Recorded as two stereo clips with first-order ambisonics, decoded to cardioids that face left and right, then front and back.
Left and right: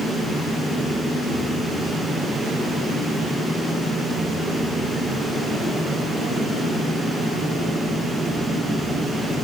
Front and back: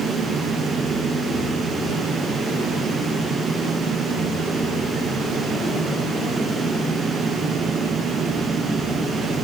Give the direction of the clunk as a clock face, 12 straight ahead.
No clunk in this recording.